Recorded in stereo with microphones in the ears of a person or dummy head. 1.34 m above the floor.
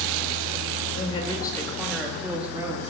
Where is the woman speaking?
40° left (ahead or behind), 2.5 m; by 2.8 s 10° right (ahead or behind), 3 m.